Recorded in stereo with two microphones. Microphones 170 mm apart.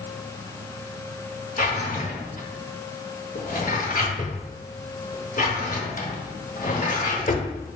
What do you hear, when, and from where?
1.6 s a drawer: 55° left (ahead or behind), 0.9 m